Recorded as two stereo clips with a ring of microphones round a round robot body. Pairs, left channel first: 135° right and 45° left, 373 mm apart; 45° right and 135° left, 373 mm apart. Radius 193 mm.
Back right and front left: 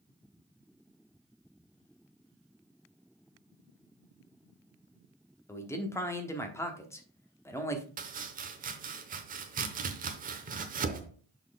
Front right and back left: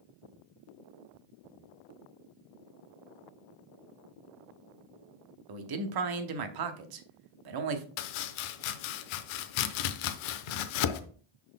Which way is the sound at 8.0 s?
25° right.